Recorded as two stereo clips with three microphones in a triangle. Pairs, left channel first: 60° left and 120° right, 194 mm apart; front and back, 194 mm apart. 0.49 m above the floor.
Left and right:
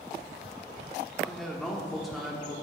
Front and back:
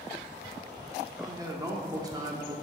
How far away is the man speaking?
About 1.0 m.